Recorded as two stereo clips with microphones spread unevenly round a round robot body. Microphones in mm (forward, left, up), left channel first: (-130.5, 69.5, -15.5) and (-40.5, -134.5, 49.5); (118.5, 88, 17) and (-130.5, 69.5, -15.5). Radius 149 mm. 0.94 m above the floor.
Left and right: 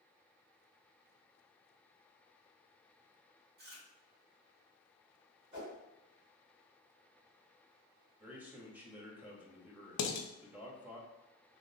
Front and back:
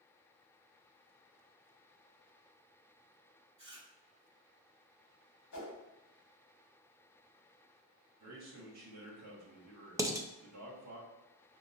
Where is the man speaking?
155° right, 1.3 m.